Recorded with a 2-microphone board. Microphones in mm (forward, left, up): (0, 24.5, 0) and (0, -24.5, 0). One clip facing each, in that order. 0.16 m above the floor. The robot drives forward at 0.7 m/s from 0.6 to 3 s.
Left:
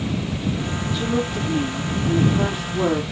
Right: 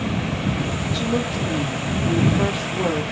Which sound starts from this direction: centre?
A woman speaking, at 0.9 s.